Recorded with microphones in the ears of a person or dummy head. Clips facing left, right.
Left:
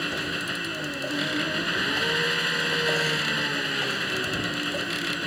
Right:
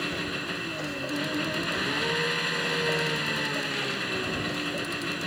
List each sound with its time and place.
0.0 s an engine running: 5° left (ahead or behind)